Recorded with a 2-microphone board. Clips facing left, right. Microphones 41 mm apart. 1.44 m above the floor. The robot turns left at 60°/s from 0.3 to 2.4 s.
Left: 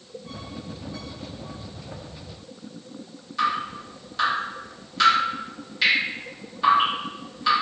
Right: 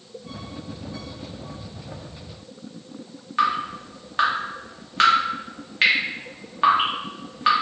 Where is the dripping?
45° right (ahead or behind), 0.8 m.